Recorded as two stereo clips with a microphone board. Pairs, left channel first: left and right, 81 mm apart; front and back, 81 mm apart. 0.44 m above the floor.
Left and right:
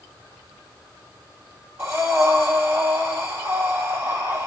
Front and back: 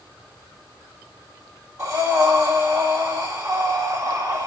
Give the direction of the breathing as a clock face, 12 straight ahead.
5 o'clock.